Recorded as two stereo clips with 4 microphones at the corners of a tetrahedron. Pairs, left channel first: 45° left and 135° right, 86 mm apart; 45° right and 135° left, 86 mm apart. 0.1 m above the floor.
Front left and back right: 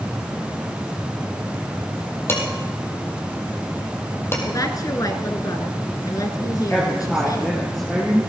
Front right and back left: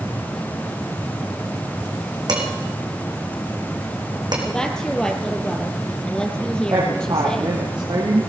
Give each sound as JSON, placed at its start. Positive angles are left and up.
{"t": 2.3, "sound": "dishes clattering", "azimuth_deg": 105, "distance_m": 3.0}
{"t": 4.5, "sound": "a woman speaking", "azimuth_deg": 30, "distance_m": 1.9}
{"t": 6.7, "sound": "a woman speaking", "azimuth_deg": 130, "distance_m": 2.5}